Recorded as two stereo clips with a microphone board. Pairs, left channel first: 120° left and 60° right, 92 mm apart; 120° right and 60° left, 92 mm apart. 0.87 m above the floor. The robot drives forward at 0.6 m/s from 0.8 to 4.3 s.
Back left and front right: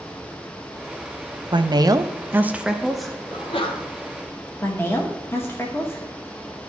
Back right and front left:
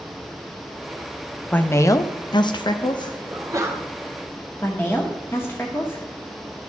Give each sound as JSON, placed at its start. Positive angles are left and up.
{"t": 1.5, "sound": "a woman speaking", "azimuth_deg": -50, "distance_m": 0.6}
{"t": 3.3, "sound": "a sneeze", "azimuth_deg": 105, "distance_m": 1.2}
{"t": 4.6, "sound": "a woman speaking", "azimuth_deg": 175, "distance_m": 0.9}